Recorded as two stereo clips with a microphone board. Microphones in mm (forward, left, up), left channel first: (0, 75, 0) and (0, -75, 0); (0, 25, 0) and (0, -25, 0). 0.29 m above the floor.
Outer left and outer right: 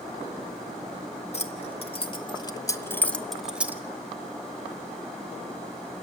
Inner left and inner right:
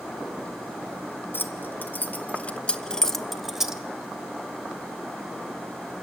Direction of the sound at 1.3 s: 45° left (ahead or behind).